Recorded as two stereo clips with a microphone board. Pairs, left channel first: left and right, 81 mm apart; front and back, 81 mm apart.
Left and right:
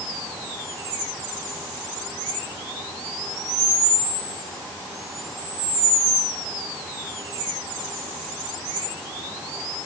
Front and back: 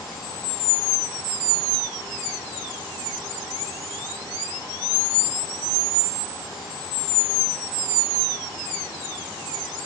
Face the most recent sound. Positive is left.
No sound to turn to.